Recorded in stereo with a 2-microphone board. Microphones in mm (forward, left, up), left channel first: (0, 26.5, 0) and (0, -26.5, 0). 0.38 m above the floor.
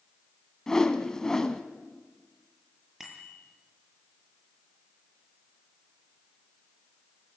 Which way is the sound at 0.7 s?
10° left (ahead or behind).